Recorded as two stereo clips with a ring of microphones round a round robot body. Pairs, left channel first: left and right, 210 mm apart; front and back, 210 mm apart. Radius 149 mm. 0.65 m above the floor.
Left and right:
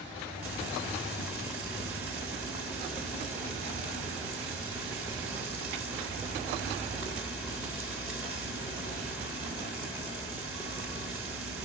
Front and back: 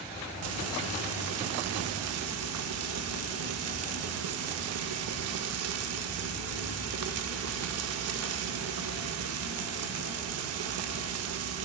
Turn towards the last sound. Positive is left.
turn(degrees=-175)